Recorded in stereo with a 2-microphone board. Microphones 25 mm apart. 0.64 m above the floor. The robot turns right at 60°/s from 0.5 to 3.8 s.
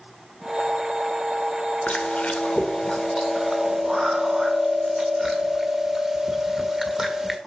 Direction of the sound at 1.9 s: 80° left.